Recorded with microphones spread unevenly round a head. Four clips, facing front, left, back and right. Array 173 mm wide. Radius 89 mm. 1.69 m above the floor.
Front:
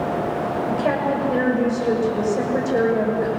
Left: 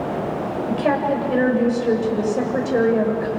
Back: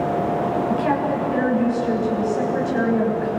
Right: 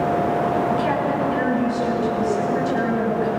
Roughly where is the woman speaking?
Ahead left.